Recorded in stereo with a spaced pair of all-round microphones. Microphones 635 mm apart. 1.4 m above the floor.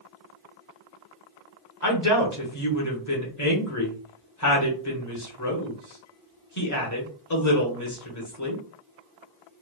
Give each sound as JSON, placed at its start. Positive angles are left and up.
{"t": 1.8, "sound": "a woman speaking", "side_deg": 30, "distance_m": 0.9}